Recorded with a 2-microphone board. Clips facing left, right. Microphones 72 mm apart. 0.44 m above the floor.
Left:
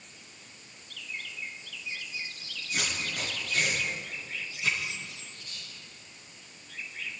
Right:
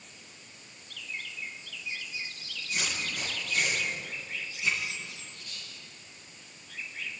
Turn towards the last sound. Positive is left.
turn(degrees=30)  # may be behind; listen again after turning